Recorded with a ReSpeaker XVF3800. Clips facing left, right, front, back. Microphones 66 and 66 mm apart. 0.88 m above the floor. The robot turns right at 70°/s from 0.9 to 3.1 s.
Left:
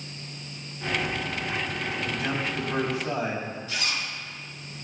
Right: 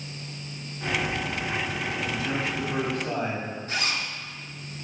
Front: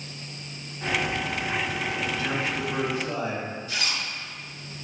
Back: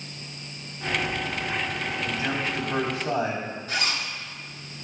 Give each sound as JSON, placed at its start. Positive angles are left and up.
{"t": 2.0, "sound": "a man speaking", "azimuth_deg": 110, "distance_m": 4.5}
{"t": 3.7, "sound": "a zipper", "azimuth_deg": -135, "distance_m": 2.5}